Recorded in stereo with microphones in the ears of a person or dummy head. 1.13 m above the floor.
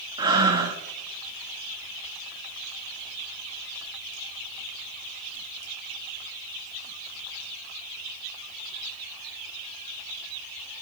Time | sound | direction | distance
0.2 | breathing | 25° right (ahead or behind) | 1.0 m